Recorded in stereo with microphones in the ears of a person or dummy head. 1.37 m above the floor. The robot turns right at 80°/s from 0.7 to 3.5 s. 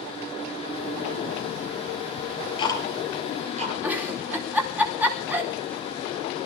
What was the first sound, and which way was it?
Ticking, 60° left (ahead or behind).